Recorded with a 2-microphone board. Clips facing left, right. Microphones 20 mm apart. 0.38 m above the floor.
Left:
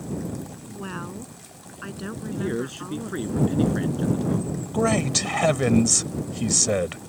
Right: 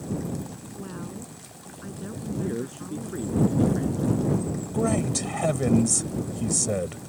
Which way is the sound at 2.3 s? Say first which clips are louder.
Left 2 dB; 55° left (ahead or behind).